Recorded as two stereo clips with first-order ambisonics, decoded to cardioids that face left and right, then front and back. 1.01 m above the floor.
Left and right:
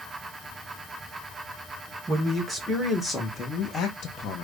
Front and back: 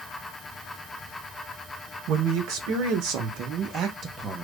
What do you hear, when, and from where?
2.1 s a man speaking: 170° right, 1.3 m; by 4.5 s 110° left, 0.8 m